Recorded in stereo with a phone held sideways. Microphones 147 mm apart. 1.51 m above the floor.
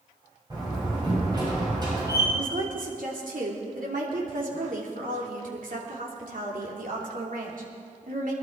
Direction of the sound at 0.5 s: 30° right (ahead or behind).